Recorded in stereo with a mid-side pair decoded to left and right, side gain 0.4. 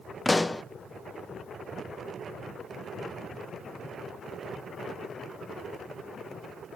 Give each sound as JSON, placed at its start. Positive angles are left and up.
{"t": 0.2, "sound": "a pop", "azimuth_deg": 20, "distance_m": 0.7}